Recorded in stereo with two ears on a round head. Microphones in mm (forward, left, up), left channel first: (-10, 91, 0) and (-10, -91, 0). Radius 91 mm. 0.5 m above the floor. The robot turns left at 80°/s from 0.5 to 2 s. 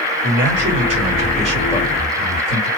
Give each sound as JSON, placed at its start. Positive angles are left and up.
{"t": 0.2, "sound": "a man speaking", "azimuth_deg": -100, "distance_m": 2.5}